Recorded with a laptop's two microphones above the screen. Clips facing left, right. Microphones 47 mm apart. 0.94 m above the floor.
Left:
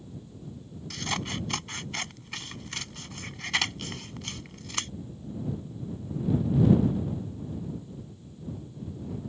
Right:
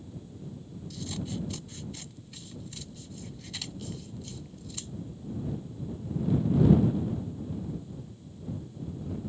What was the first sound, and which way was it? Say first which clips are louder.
Scissors: left 5 dB; 80° left.